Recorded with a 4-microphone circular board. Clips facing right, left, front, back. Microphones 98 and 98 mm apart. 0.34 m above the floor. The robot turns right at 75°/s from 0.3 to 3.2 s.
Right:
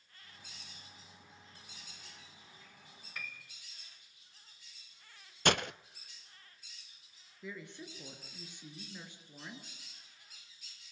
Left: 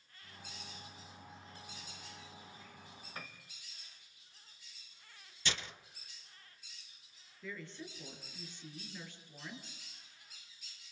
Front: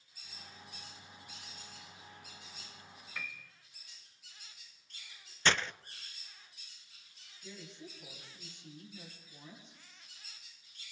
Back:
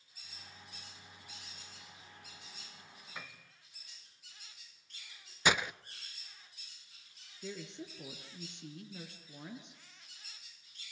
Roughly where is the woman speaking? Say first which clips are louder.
Even, back 5 dB; behind.